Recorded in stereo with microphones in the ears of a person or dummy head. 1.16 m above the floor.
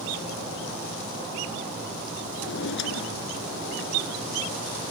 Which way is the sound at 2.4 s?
65° left (ahead or behind).